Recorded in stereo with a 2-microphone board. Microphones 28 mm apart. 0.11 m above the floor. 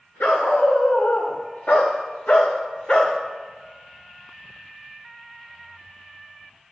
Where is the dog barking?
70° left (ahead or behind), 3.5 m; by 3.2 s 25° left (ahead or behind), 2 m.